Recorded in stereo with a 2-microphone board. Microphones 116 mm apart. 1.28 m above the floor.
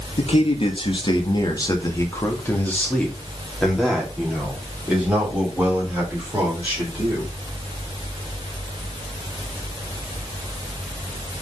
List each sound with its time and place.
0.2 s a man speaking: 60° left (ahead or behind), 1.6 m; by 7.3 s 20° right (ahead or behind), 4 m